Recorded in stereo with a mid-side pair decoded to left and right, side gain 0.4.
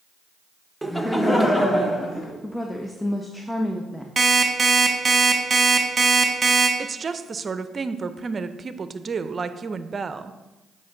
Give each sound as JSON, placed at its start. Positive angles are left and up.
{"t": 0.8, "sound": "laughter", "azimuth_deg": -5, "distance_m": 1.1}
{"t": 2.4, "sound": "a woman speaking", "azimuth_deg": 5, "distance_m": 0.8}
{"t": 4.2, "sound": "an alarm clock", "azimuth_deg": -30, "distance_m": 1.3}
{"t": 6.8, "sound": "a woman speaking", "azimuth_deg": -40, "distance_m": 0.6}